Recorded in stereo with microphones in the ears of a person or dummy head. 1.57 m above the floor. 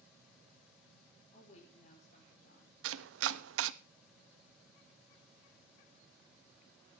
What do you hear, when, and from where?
1.3 s a woman speaking: 35° left (ahead or behind), 4.5 m; by 2.7 s 50° left (ahead or behind), 6 m
2.8 s chopping: 75° right (ahead or behind), 0.6 m